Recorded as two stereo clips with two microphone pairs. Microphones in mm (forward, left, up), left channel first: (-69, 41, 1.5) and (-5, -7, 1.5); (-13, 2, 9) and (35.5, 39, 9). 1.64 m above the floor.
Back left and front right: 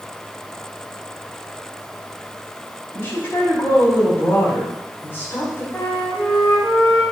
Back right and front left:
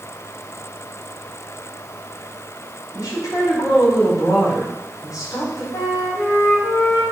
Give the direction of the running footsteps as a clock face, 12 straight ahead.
No running footsteps in this recording.